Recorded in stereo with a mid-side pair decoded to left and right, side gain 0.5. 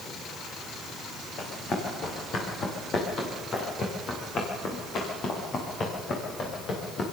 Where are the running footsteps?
50° left, 7 m.